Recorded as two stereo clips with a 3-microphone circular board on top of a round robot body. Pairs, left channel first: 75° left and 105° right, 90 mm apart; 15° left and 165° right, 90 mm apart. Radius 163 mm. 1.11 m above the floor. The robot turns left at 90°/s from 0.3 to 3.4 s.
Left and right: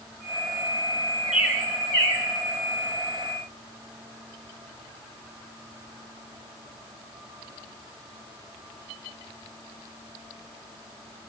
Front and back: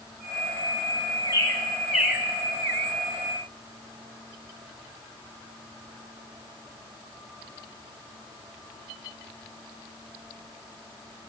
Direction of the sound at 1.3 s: 25° right.